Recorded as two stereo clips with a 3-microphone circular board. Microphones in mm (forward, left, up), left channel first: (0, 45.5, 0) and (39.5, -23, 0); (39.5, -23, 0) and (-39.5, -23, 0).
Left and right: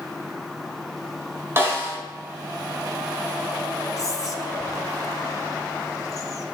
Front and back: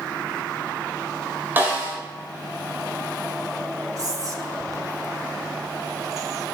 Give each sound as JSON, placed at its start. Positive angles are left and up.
{"t": 1.6, "sound": "a snare drum", "azimuth_deg": -115, "distance_m": 2.5}
{"t": 4.0, "sound": "whispering", "azimuth_deg": 150, "distance_m": 0.9}